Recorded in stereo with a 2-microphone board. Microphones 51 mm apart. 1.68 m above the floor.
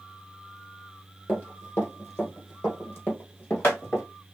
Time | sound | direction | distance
1.3 | running footsteps | 40° left (ahead or behind) | 2.5 m